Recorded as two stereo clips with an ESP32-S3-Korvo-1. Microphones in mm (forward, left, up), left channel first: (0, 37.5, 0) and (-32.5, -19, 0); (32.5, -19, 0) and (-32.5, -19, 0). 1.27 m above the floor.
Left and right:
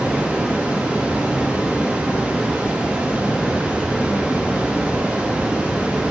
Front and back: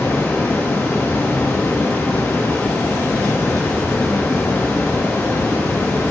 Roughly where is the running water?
Ahead right.